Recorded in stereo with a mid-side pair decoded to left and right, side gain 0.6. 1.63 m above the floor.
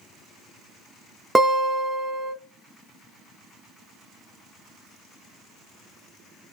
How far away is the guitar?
About 1.1 m.